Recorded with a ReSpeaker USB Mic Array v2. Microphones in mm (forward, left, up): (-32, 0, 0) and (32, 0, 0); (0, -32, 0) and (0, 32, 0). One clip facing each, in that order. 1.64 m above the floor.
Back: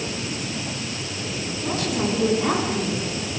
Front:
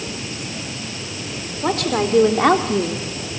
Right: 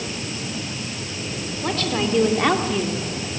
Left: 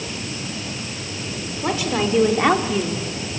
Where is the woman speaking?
10° left, 5 m.